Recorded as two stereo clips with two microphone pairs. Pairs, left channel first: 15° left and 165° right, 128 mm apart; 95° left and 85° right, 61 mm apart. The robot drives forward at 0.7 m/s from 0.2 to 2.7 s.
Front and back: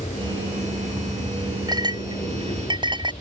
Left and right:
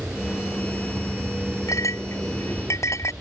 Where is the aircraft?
15° right.